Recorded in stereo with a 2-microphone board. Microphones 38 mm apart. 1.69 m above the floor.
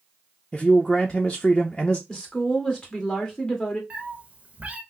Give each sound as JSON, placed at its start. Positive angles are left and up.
{"t": 0.5, "sound": "a man speaking", "side_deg": 10, "distance_m": 0.6}
{"t": 2.1, "sound": "a woman speaking", "side_deg": 20, "distance_m": 1.7}
{"t": 3.9, "sound": "a cat meowing", "side_deg": -25, "distance_m": 1.0}